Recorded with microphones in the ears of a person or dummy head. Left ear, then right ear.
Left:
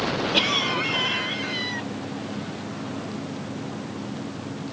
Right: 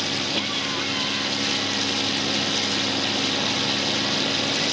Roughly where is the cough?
Centre.